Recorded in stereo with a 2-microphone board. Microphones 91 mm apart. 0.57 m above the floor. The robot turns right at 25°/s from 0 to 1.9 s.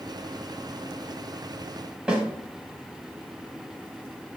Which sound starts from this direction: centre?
A snare drum, at 2.1 s.